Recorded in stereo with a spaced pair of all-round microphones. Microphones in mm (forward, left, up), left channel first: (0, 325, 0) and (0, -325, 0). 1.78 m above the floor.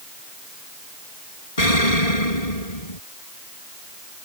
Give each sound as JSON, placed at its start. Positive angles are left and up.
{"t": 1.6, "sound": "an explosion", "side_deg": 70}